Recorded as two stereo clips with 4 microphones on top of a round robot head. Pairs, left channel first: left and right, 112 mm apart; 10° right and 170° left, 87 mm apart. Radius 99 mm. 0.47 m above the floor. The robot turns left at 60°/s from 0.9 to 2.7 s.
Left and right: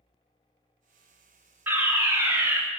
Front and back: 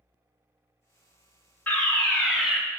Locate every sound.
1.7 s a fire alarm: 50° right, 1.9 m; by 2.6 s 105° right, 1.9 m